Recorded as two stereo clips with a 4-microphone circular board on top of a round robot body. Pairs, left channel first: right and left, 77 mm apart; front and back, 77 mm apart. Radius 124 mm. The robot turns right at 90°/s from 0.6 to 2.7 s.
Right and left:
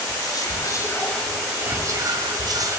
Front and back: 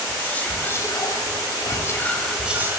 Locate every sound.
0.1 s whispering: 65° right, 1.2 m; by 2.8 s 125° left, 1.2 m